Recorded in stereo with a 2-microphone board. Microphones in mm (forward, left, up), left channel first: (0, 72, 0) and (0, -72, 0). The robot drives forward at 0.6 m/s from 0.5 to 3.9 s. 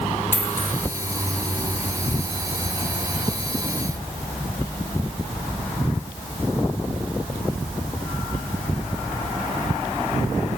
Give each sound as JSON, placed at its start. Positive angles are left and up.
{"t": 0.3, "sound": "a dropped coin", "side_deg": 15, "distance_m": 1.4}